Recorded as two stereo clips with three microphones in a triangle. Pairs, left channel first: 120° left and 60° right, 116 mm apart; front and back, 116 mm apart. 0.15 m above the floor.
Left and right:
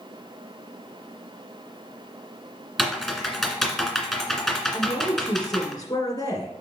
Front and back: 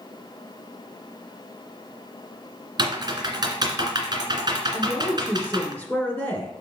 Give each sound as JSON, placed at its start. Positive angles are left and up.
{"t": 2.8, "sound": "typing on a keyboard", "azimuth_deg": -145, "distance_m": 1.7}
{"t": 4.7, "sound": "a woman speaking", "azimuth_deg": 75, "distance_m": 1.9}